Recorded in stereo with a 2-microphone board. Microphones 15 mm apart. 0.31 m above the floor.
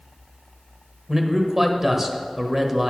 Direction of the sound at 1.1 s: 20° right (ahead or behind).